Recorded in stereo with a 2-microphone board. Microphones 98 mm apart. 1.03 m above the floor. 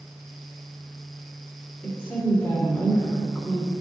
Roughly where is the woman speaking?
Left.